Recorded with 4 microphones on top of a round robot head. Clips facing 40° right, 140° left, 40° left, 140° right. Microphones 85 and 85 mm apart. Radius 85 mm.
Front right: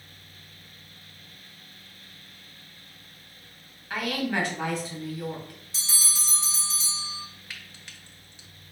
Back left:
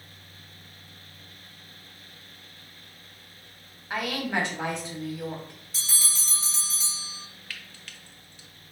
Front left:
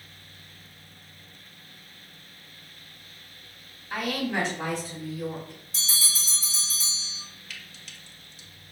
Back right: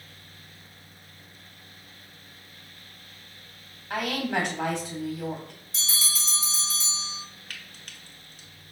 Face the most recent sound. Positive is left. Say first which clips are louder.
# back left 1 dB, back right 1 dB
turn(degrees=-110)